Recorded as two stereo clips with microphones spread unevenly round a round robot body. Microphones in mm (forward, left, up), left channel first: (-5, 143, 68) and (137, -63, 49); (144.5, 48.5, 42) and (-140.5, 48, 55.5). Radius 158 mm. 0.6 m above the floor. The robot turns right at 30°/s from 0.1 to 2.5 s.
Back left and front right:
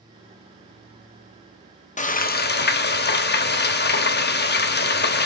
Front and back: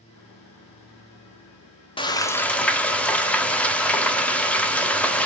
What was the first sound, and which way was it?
Frying, 65° left.